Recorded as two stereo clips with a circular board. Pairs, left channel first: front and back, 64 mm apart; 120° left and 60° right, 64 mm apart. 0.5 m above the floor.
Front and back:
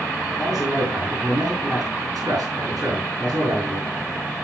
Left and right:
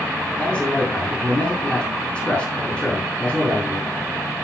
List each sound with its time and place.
0.4 s a man speaking: 165° right, 4 m